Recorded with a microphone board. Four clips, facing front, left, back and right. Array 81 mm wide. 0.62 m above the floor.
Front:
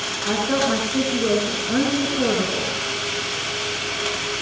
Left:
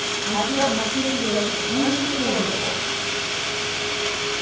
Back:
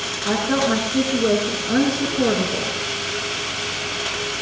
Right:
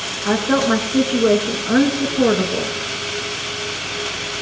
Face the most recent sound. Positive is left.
turn(degrees=-95)